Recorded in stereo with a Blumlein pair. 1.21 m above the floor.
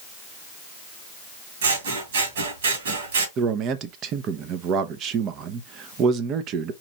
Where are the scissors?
60° right, 2 m.